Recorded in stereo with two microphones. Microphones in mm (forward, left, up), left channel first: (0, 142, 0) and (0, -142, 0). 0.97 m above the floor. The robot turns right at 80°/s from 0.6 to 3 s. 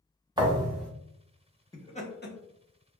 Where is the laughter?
10° left (ahead or behind), 0.7 m; by 2.4 s 40° left (ahead or behind), 0.7 m.